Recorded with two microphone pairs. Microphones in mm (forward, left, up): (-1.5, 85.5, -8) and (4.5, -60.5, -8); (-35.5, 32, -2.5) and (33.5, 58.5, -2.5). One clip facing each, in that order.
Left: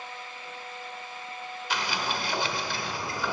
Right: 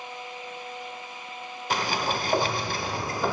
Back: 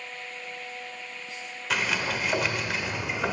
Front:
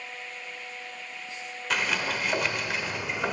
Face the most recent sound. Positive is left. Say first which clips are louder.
# right 4 dB, even
turn(degrees=-70)